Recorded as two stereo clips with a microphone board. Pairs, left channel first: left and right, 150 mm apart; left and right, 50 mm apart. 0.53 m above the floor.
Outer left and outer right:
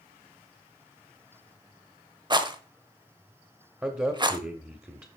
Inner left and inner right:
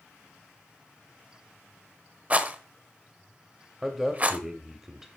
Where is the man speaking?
15° right (ahead or behind), 1.2 m.